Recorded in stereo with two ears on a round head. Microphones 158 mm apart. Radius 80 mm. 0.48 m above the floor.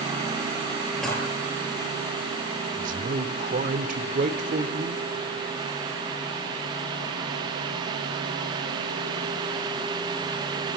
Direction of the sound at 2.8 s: 45° right (ahead or behind).